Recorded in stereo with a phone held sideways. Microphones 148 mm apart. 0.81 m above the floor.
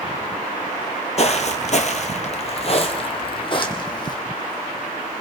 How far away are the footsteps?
About 1.2 m.